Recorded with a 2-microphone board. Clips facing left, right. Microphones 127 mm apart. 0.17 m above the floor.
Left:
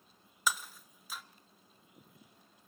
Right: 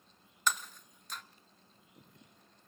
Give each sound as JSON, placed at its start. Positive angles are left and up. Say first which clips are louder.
{"t": 0.5, "sound": "breaking glass", "louder": "even", "side_deg": 5, "distance_m": 1.2}